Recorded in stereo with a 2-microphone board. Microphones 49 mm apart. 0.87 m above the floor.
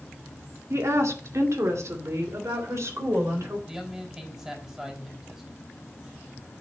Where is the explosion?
I don't hear an explosion.